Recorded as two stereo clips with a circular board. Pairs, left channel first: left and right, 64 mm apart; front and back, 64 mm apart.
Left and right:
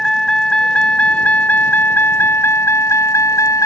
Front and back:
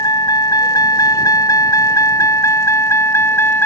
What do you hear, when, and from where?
0.0 s a vehicle: 10° left; by 3.7 s 55° left